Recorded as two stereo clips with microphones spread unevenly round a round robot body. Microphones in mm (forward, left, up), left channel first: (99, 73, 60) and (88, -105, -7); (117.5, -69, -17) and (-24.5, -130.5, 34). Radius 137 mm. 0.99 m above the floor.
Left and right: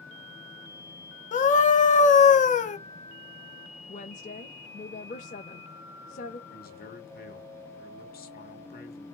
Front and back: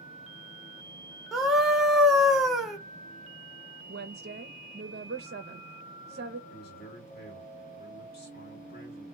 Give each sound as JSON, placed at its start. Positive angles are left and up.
{"t": 1.3, "sound": "a scream", "azimuth_deg": 55, "distance_m": 0.8}
{"t": 3.9, "sound": "a woman speaking", "azimuth_deg": 150, "distance_m": 0.5}
{"t": 6.5, "sound": "a man speaking", "azimuth_deg": 50, "distance_m": 1.7}